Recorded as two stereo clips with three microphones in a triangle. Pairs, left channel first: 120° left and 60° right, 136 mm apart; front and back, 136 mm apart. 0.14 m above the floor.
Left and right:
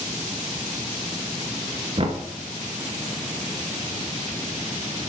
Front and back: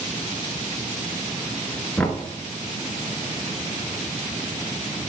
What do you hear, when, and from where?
2.0 s knocking: 75° right, 1.1 m